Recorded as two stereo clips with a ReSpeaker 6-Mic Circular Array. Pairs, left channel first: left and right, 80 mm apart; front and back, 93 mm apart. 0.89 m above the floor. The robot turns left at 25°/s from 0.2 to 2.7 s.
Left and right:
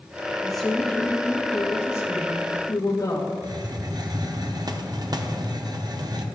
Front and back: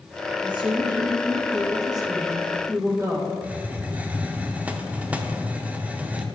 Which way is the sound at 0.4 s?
Straight behind.